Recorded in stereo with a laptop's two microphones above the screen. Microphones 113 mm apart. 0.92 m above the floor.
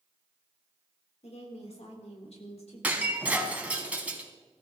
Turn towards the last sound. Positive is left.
turn(degrees=-10)  # may be behind; listen again after turning